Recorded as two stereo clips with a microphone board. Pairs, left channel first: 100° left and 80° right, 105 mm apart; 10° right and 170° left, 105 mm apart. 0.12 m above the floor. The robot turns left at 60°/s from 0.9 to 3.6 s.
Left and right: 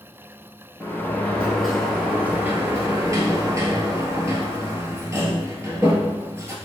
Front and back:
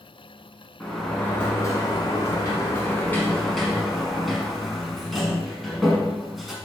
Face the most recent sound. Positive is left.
turn(degrees=-100)